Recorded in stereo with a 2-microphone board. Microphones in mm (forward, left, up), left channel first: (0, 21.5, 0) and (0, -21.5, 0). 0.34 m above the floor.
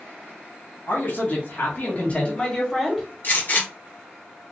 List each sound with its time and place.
0.9 s a man speaking: 60° left (ahead or behind), 3.5 m; by 3.1 s 5° right (ahead or behind), 2 m
3.2 s a gunshot: 50° left (ahead or behind), 2 m